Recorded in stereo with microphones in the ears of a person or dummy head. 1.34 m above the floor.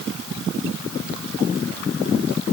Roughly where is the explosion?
I don't hear an explosion.